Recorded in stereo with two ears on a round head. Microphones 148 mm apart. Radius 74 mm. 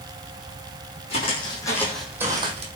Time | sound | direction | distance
1.1 | footsteps | 40° left (ahead or behind) | 1.9 m